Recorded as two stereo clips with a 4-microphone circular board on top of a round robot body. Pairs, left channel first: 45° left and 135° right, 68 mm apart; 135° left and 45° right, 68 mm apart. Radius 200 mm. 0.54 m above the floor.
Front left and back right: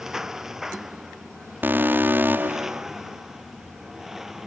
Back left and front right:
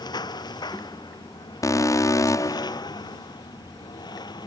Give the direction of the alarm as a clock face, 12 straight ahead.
6 o'clock.